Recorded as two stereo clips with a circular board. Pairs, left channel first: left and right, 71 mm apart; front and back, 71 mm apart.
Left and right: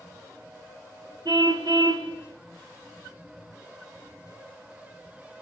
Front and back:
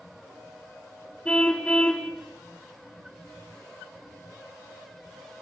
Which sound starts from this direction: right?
A car horn, at 1.2 s.